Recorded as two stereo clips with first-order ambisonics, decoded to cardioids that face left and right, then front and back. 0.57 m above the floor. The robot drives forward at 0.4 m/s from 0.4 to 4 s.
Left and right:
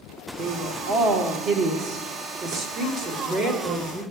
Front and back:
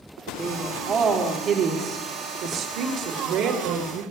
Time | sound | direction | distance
0.4 | a woman speaking | 115° right | 1.4 m